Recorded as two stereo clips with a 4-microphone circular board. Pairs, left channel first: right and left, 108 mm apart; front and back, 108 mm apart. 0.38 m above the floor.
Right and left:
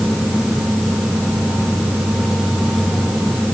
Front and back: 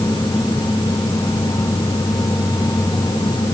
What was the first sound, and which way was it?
Only background noise.